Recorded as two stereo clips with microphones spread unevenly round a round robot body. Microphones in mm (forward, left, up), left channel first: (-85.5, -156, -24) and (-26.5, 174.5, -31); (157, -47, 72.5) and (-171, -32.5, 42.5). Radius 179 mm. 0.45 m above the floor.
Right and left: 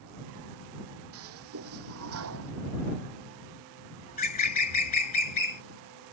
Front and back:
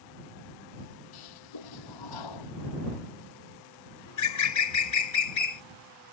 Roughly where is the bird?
Ahead right.